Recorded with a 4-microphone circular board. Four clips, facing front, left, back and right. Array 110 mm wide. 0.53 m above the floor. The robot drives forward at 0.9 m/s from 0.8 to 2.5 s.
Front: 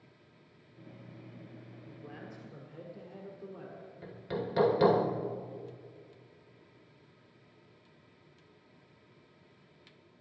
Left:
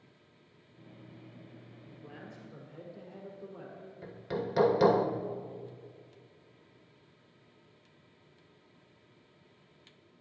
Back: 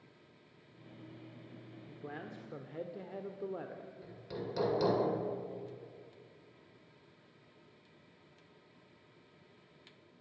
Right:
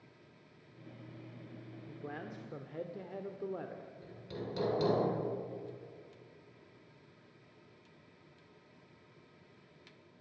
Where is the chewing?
I don't hear chewing.